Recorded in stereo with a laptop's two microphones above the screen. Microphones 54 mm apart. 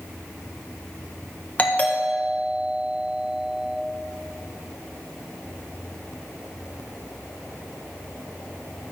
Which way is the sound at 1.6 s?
25° left (ahead or behind).